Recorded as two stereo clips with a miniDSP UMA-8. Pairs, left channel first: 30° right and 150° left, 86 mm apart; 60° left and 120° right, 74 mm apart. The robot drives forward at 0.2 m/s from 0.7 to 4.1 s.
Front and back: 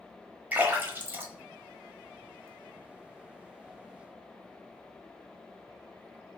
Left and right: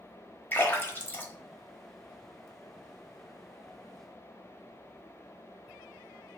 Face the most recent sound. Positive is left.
turn(degrees=145)